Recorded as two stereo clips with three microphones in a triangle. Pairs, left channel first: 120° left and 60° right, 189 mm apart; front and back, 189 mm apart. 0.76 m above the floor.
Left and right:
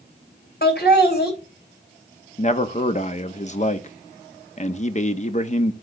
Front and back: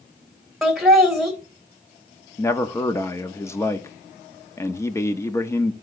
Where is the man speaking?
75° left, 0.8 m.